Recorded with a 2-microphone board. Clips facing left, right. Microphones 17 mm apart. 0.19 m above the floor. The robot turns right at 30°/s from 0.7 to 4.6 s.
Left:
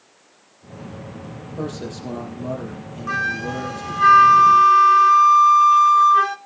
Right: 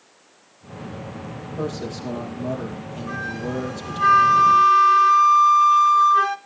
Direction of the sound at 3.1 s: 130° left.